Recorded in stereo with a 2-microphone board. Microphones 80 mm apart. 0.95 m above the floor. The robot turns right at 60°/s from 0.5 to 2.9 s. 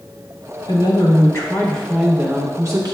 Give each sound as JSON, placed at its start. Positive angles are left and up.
{"t": 0.7, "sound": "a woman speaking", "azimuth_deg": 100, "distance_m": 1.1}